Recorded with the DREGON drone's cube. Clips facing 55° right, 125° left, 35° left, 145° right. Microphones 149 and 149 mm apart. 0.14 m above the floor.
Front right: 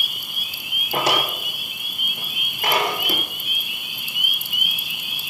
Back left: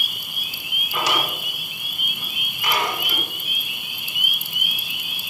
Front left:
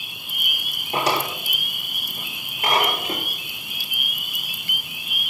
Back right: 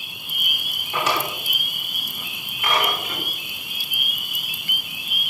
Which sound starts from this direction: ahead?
A drawer, at 0.9 s.